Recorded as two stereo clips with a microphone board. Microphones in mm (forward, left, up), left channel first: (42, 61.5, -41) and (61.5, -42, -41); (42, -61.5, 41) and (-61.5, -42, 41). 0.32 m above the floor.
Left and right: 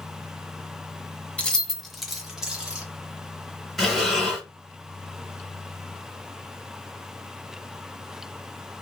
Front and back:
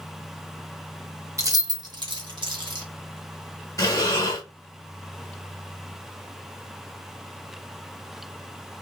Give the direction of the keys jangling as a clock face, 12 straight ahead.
6 o'clock.